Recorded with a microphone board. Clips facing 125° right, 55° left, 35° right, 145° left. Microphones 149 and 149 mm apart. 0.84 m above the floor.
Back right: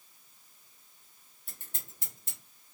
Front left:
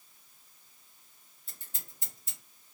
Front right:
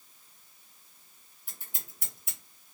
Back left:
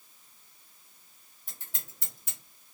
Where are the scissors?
110° right, 1.8 m.